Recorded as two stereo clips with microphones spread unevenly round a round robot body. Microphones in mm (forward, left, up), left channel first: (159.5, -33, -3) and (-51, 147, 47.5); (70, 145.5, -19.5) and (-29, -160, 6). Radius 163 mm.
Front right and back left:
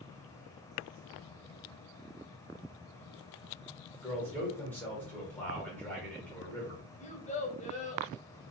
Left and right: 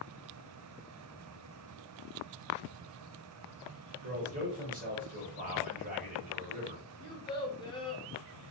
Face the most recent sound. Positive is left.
turn(degrees=5)